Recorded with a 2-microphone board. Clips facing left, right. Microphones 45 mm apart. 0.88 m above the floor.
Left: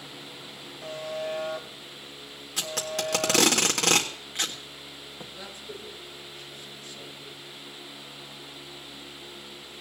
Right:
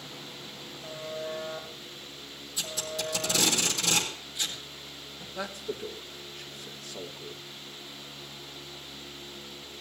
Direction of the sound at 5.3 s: 75° right (ahead or behind).